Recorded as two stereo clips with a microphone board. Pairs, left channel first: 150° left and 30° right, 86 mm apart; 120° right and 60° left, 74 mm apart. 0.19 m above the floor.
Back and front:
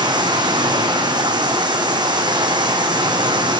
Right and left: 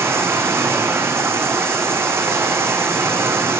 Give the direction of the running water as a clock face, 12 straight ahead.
12 o'clock.